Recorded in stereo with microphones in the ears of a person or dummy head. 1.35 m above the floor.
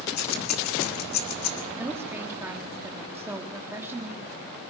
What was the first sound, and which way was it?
Keys jangling, 55° left (ahead or behind).